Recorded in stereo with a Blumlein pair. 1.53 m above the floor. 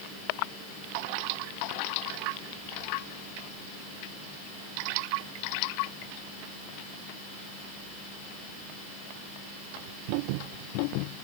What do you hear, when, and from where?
Only background noise.